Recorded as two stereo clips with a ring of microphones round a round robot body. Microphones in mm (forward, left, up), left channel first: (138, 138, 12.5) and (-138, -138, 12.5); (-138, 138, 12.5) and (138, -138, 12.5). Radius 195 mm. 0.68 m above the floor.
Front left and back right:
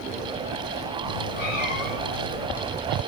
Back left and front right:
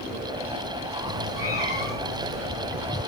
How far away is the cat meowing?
About 4.5 m.